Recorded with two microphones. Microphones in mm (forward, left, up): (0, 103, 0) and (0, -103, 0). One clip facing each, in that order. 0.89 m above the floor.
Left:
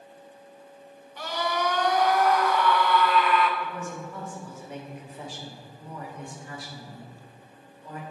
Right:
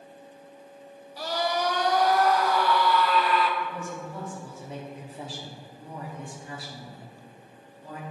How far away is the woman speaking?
About 2 m.